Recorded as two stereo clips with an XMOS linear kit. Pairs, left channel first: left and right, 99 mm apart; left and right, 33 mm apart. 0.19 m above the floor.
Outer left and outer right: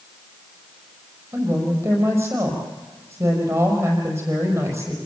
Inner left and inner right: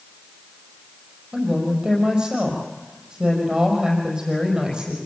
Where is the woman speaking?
30° right (ahead or behind), 6 m.